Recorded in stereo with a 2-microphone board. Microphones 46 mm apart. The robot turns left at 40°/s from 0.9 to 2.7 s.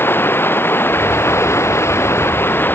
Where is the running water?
120° left; by 2.8 s 50° left.